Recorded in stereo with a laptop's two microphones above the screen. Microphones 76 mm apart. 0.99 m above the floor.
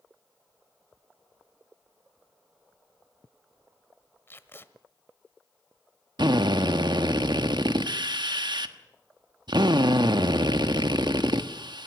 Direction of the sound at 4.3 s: 30° left (ahead or behind).